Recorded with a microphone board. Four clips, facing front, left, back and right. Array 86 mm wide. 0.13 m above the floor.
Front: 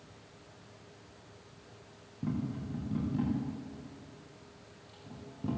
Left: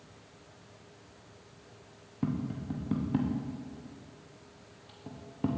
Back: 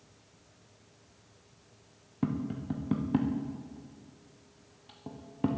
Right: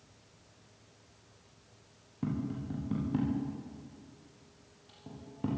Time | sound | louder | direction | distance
2.2 | tapping | left 2 dB, back 3 dB | 160° left | 6.5 m